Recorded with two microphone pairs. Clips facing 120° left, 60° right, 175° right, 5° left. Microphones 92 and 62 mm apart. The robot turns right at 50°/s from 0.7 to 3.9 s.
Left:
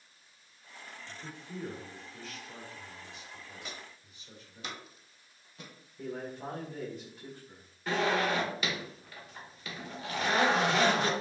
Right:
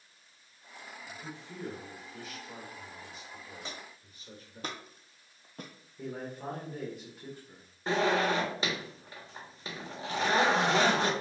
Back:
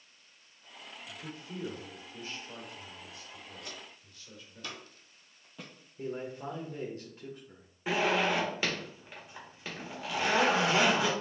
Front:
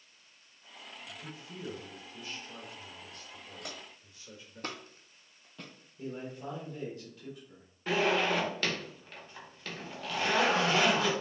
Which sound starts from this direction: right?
A zipper, at 7.9 s.